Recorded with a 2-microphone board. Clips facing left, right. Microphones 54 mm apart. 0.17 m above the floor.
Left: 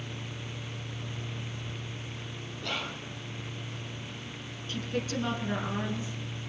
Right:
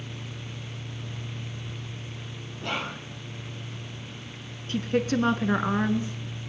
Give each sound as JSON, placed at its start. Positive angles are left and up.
{"t": 2.6, "sound": "whispering", "side_deg": -30, "distance_m": 2.0}
{"t": 4.7, "sound": "a woman speaking", "side_deg": -45, "distance_m": 2.5}